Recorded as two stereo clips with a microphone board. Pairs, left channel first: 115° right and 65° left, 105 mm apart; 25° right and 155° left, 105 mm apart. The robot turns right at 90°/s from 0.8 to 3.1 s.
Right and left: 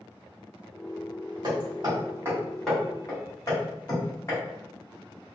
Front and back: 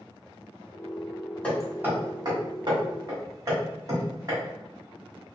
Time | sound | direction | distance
1.4 | hammering | 50° left | 1.9 m